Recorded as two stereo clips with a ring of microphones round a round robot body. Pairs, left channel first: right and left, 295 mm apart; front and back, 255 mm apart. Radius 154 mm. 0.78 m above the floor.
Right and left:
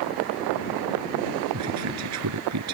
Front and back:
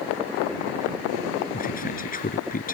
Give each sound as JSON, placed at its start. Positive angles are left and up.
{"t": 1.5, "sound": "a man speaking", "azimuth_deg": 55}